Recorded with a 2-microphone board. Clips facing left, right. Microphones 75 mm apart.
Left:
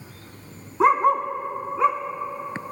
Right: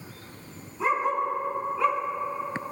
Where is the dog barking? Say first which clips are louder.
Left 7 dB; 70° left (ahead or behind), 1.5 m; by 2.0 s 20° left (ahead or behind), 1.8 m.